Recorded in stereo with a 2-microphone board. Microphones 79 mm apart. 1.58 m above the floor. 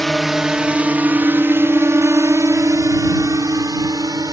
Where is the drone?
5° left (ahead or behind); by 4.3 s 55° right (ahead or behind).